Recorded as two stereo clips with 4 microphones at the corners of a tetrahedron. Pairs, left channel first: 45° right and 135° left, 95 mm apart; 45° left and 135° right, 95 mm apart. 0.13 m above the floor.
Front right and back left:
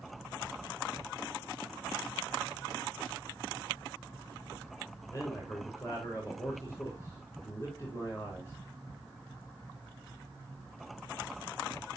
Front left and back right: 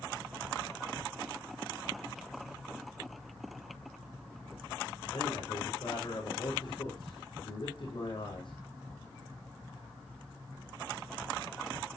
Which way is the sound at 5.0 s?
15° left.